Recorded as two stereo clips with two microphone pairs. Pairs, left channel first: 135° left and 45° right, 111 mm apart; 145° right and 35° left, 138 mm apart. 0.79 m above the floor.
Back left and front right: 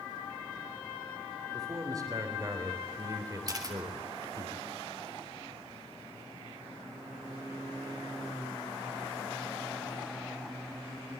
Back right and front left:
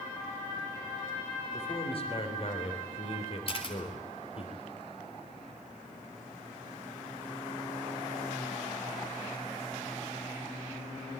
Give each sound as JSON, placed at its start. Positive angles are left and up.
{"t": 1.5, "sound": "a man speaking", "azimuth_deg": -100, "distance_m": 3.5}
{"t": 3.5, "sound": "a camera shutter", "azimuth_deg": -100, "distance_m": 3.5}